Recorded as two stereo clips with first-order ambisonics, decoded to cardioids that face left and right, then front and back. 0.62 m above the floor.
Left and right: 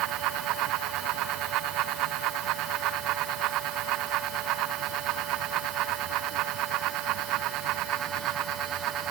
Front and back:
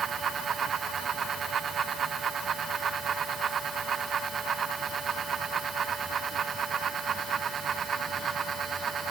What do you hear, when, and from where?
Only background noise.